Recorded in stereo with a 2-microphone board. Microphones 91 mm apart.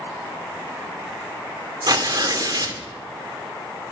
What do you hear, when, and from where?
1.9 s tearing paper: 50° right (ahead or behind), 2.5 m